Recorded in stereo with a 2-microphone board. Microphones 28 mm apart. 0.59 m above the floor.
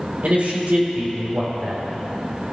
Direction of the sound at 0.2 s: 65° right (ahead or behind).